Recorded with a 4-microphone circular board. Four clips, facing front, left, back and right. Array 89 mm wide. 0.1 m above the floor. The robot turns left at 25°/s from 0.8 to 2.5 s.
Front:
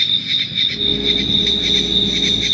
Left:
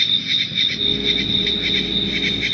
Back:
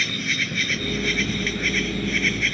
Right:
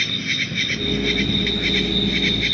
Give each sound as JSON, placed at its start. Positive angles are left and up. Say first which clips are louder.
{"t": 0.0, "sound": "an insect", "louder": "right 1 dB, back 1 dB", "azimuth_deg": -145}